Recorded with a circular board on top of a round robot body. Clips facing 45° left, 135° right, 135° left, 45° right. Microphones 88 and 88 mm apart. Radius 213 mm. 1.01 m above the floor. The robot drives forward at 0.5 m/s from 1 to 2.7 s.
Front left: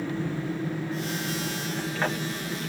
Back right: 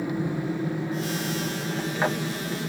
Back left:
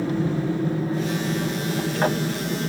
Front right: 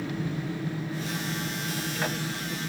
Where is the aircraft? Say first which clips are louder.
Back right 2 dB, back left 8 dB; 160° left; by 2.7 s 155° left.